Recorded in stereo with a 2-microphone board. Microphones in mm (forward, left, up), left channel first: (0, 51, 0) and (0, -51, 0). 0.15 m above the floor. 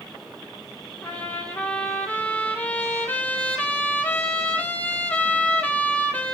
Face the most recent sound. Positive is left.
turn(degrees=15)  # may be behind; listen again after turning